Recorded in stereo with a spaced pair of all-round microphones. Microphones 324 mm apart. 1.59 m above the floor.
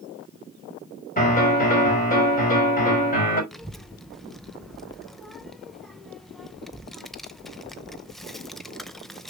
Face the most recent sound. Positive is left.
turn(degrees=0)  # may be behind; listen again after turning